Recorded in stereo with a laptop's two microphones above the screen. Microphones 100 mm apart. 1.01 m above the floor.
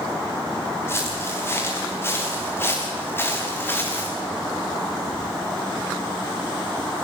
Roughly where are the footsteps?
Left.